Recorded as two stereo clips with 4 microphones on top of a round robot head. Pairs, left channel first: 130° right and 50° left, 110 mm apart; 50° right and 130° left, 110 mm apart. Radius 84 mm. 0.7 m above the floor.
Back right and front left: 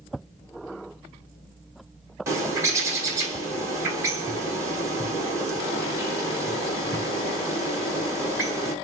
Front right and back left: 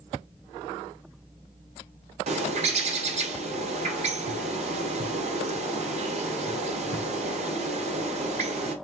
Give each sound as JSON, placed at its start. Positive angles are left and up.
{"t": 2.3, "sound": "a bird", "azimuth_deg": 110, "distance_m": 2.0}